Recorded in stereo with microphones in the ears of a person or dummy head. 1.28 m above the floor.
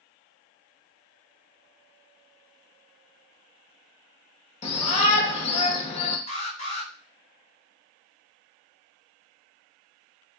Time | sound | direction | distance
4.6 | a shout | 40° left (ahead or behind) | 0.9 m
6.3 | an alarm | 45° left (ahead or behind) | 1.7 m